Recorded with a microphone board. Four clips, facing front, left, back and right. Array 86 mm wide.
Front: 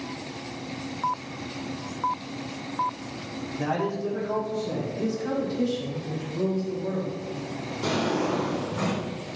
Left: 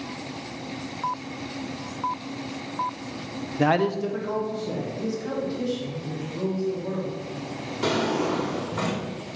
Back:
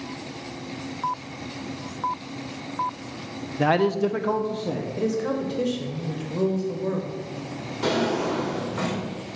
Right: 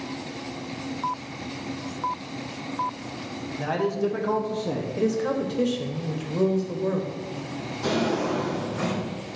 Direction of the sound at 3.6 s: 125° left.